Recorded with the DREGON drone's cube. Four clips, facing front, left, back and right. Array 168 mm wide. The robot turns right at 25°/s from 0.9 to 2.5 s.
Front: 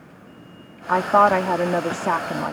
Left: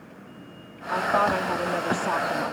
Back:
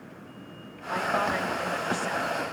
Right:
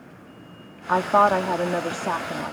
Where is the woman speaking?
35° right; by 2.5 s 5° left.